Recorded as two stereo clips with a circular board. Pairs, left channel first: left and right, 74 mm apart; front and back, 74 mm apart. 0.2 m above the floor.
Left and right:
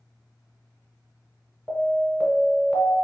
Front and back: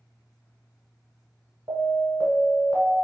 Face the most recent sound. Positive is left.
turn(degrees=170)